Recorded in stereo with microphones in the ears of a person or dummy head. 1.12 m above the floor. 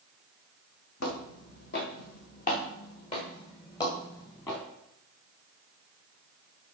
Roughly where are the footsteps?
Left.